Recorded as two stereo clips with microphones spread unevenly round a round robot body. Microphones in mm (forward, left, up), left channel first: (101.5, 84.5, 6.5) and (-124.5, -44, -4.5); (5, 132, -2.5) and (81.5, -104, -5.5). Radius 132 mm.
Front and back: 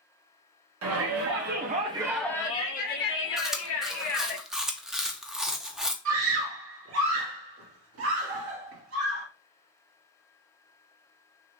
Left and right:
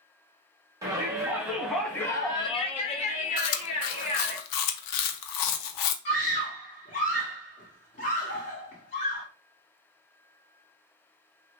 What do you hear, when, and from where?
0.8 s a shout: 145° right, 0.9 m; by 4.4 s 50° left, 1.3 m
3.4 s chewing: 120° left, 0.5 m
6.0 s a scream: 175° left, 1.7 m